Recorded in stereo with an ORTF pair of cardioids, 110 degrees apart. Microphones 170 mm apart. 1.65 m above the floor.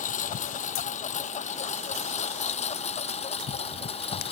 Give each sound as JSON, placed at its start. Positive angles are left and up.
{"t": 0.0, "sound": "a lawn mower", "azimuth_deg": 50}